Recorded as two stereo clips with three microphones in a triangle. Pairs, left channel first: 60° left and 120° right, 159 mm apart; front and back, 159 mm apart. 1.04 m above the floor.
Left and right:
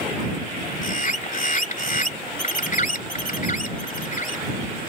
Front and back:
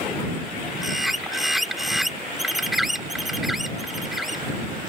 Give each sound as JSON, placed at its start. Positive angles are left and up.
{"t": 0.8, "sound": "a bird", "azimuth_deg": 90}